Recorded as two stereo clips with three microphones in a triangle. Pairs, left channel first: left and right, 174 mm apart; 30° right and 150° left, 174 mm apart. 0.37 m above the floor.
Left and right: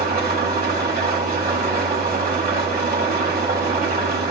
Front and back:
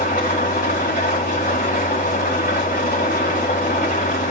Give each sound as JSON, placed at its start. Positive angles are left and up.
{"t": 0.0, "sound": "an engine running", "azimuth_deg": -65, "distance_m": 1.6}